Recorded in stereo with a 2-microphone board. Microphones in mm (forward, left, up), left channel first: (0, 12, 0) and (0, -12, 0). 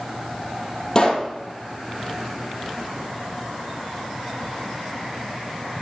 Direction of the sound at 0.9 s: 20° left (ahead or behind).